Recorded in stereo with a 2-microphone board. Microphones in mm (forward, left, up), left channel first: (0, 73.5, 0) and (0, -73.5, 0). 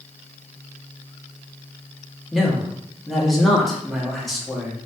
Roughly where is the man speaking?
Centre.